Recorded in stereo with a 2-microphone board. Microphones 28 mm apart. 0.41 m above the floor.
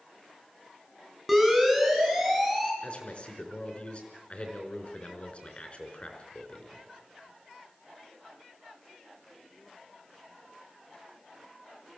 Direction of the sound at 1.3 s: Centre (ahead or behind).